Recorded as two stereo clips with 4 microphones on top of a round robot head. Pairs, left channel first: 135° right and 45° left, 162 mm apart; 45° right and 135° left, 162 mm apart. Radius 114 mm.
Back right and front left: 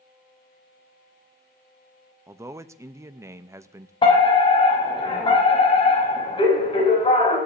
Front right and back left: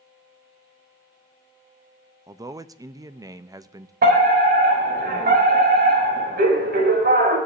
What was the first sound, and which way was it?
A man speaking, 95° left.